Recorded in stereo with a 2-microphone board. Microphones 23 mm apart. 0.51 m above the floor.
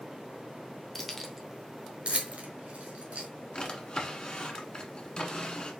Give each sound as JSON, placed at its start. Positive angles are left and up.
{"t": 0.9, "sound": "keys jangling", "side_deg": 10, "distance_m": 1.0}
{"t": 3.5, "sound": "a drawer", "side_deg": 35, "distance_m": 1.4}